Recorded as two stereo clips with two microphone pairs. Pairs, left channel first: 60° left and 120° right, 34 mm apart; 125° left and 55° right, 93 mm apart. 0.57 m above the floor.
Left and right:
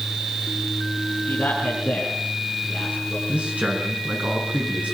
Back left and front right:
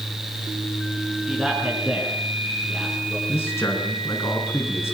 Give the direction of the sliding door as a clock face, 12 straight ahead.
No sliding door in this recording.